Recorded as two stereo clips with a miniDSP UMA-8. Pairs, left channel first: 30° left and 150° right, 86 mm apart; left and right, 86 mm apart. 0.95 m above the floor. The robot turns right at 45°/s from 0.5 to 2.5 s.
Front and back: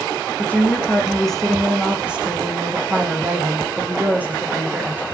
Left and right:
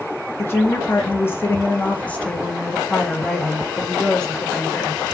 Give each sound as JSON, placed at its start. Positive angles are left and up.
{"t": 0.4, "sound": "a woman speaking", "azimuth_deg": 70, "distance_m": 0.7}